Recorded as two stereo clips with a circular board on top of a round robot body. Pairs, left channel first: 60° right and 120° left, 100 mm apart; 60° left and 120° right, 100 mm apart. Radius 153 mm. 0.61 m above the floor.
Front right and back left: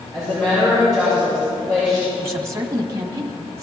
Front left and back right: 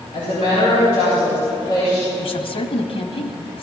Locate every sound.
0.1 s a woman speaking: 25° left, 7 m
2.2 s a woman speaking: 65° left, 1.4 m